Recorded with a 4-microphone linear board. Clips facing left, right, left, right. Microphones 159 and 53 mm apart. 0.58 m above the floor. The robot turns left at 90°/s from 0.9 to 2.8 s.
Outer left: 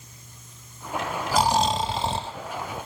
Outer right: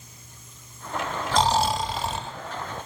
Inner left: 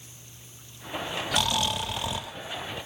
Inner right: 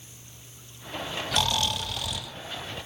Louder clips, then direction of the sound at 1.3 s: Even, even; 5° left (ahead or behind).